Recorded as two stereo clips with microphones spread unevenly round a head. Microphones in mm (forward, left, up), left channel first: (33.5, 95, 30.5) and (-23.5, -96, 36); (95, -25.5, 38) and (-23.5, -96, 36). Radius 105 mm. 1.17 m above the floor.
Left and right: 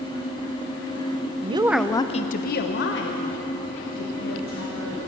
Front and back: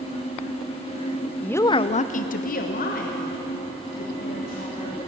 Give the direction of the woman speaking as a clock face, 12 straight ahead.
2 o'clock.